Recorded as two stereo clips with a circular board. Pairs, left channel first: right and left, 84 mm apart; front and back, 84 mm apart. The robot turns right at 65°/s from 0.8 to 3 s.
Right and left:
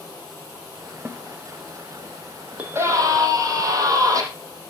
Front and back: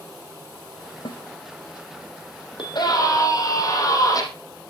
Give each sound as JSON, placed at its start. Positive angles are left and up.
{"t": 1.1, "sound": "a snare drum", "azimuth_deg": 20, "distance_m": 1.6}
{"t": 2.6, "sound": "a scream", "azimuth_deg": 20, "distance_m": 5.5}